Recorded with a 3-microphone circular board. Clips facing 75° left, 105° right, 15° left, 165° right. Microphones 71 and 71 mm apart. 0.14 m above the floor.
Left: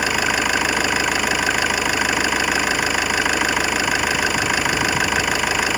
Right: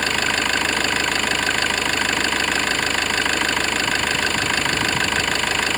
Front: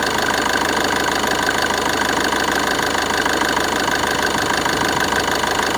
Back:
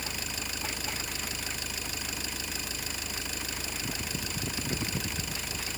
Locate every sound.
0.0 s an engine running: 5° right